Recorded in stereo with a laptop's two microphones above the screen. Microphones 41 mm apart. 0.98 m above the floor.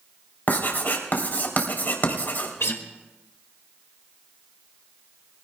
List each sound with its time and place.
0.5 s writing: 50° left (ahead or behind), 3.5 m
2.6 s a guitar: 80° left, 1.7 m